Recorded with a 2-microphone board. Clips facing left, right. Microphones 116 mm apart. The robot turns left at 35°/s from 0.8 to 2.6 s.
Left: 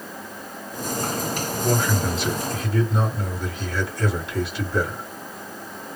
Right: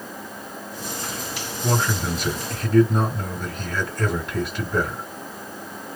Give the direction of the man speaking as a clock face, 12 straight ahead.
2 o'clock.